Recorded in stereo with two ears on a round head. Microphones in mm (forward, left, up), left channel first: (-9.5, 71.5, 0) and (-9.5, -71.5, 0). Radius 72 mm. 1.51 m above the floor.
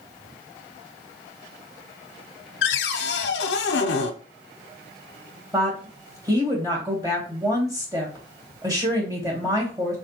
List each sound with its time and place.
2.6 s a cupboard door: 70° left (ahead or behind), 0.6 m
5.5 s a woman speaking: 25° right (ahead or behind), 2 m